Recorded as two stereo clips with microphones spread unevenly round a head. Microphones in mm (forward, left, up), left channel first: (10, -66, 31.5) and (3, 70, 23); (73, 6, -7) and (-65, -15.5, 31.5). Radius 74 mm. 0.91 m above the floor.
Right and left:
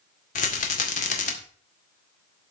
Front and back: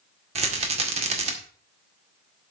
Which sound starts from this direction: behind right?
A rattle, at 0.3 s.